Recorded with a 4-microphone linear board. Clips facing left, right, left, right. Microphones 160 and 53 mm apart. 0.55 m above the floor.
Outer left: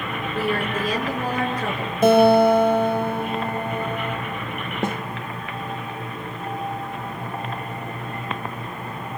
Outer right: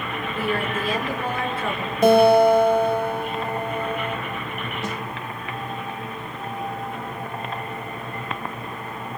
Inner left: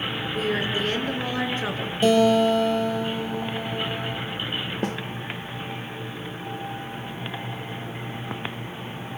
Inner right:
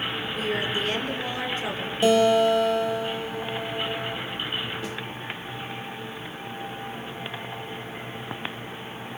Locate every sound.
0.3 s a woman speaking: 40° left (ahead or behind), 6.5 m
2.0 s a guitar: 5° left (ahead or behind), 4.5 m
4.8 s a snare drum: 55° left (ahead or behind), 0.9 m